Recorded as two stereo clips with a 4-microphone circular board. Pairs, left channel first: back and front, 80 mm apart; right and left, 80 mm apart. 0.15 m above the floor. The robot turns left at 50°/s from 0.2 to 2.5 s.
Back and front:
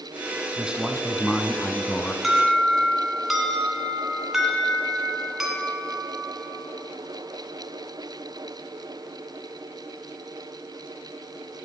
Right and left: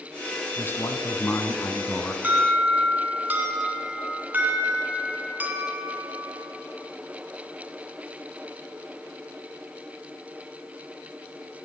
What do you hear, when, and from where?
0.6 s a man speaking: 60° right, 1.1 m; by 2.1 s 140° right, 1.1 m
2.2 s an alarm: 90° left, 2 m; by 6.4 s 80° left, 2 m